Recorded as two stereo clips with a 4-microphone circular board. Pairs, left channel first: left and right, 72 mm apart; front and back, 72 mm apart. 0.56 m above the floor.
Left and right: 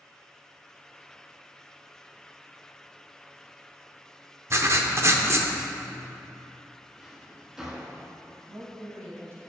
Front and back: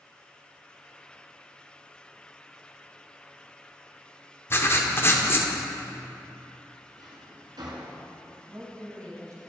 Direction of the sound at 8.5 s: 140° right.